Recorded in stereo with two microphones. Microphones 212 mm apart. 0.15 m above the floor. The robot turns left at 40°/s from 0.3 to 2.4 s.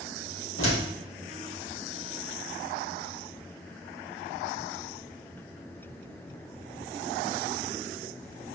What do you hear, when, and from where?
0.6 s a door slam: 70° left (ahead or behind), 3 m; by 0.8 s 60° left (ahead or behind), 3 m